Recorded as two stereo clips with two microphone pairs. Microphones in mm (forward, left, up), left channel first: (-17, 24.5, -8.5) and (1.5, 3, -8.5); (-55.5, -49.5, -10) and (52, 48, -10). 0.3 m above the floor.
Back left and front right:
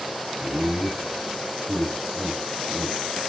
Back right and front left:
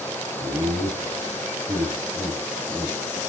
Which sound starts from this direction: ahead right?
Laughter, at 0.4 s.